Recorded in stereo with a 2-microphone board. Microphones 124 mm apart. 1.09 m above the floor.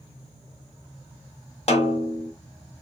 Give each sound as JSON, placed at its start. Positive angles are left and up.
{"t": 1.7, "sound": "a snare drum", "side_deg": 60, "distance_m": 1.0}